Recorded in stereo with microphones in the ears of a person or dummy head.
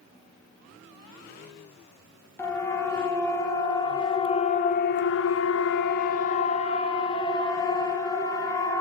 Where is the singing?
I don't hear singing.